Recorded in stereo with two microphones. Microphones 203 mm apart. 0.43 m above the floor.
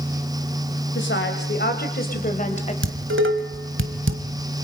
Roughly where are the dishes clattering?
Right.